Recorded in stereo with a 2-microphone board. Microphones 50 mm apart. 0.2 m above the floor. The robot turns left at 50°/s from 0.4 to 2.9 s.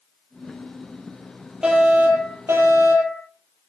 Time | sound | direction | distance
1.6 | a fire alarm | 15° right | 8.5 m